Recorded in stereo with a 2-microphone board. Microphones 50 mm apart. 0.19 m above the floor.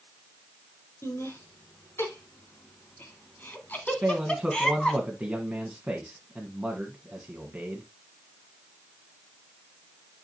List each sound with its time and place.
1.0 s laughter: 55° left (ahead or behind), 3 m; by 5.0 s 5° left (ahead or behind), 1.8 m
4.0 s a man speaking: 15° right (ahead or behind), 1.4 m